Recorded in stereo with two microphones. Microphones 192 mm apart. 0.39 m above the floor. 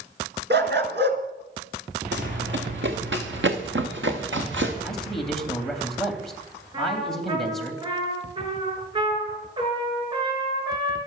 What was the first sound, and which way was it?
A dog barking, 65° right (ahead or behind).